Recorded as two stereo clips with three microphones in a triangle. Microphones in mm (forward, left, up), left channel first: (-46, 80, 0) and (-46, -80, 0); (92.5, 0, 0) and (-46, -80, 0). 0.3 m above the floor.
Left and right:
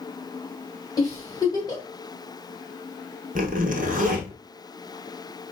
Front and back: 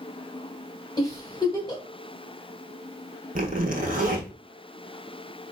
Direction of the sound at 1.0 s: 60° left.